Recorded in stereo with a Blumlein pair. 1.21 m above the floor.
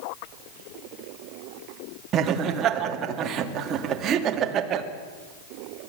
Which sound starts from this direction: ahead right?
Laughter, at 2.1 s.